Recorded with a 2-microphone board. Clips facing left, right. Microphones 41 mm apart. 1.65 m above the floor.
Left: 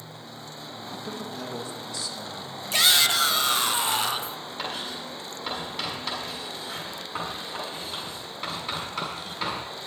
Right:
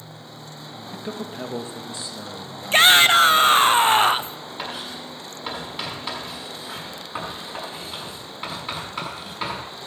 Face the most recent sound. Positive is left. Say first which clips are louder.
# right 1 dB
turn(degrees=-10)  # may be behind; listen again after turning